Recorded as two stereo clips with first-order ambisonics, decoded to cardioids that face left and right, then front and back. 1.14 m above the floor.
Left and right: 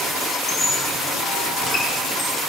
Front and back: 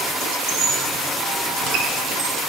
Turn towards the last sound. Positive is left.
turn(degrees=175)